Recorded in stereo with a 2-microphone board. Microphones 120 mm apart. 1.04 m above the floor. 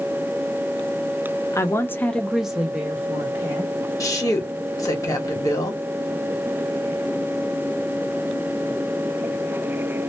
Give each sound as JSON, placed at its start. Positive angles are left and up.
{"t": 1.5, "sound": "a woman speaking", "side_deg": 25, "distance_m": 0.7}
{"t": 4.0, "sound": "a woman speaking", "side_deg": 30, "distance_m": 1.3}